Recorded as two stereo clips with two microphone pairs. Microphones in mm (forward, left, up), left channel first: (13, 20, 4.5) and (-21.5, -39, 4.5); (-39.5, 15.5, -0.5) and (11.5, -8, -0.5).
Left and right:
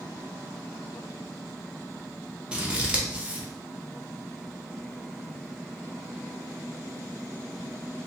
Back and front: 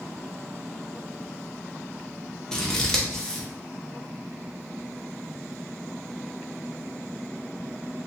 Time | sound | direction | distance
2.5 | scissors | 150° right | 0.6 m